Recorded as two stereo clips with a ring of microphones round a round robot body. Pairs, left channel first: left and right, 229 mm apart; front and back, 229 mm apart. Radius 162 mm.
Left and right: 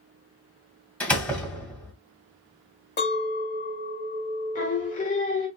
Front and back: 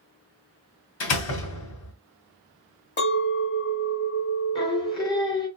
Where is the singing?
60° left, 1.5 m.